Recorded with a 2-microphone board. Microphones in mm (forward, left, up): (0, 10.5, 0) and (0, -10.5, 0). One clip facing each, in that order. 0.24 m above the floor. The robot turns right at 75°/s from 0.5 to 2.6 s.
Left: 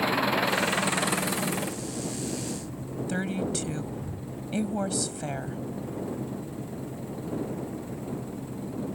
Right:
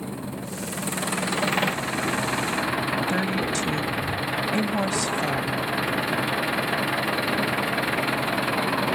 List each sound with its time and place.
0.0 s an engine running: 135° left; by 8.9 s 70° right
3.1 s a woman speaking: 15° right (ahead or behind)